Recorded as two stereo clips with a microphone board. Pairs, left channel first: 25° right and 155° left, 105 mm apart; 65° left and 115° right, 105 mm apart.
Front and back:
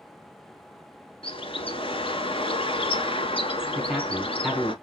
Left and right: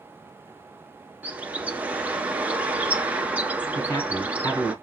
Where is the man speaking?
75° left, 1.8 m.